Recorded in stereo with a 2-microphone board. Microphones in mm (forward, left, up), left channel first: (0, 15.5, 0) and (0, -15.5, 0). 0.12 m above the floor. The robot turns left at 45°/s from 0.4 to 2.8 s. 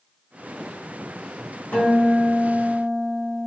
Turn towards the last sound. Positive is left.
turn(degrees=60)